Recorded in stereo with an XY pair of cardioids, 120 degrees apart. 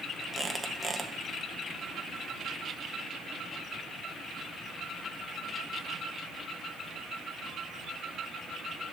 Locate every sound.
0.3 s a squeak: 10° right, 0.9 m